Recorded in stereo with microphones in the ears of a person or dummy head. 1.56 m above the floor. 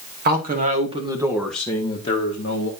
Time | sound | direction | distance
0.2 | a man speaking | 50° right (ahead or behind) | 2.5 m